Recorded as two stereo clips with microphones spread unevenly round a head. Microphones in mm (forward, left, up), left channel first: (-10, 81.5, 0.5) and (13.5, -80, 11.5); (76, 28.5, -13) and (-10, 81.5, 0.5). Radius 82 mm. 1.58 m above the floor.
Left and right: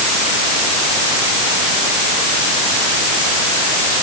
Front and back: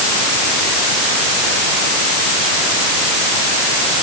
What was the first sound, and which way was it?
Only background noise.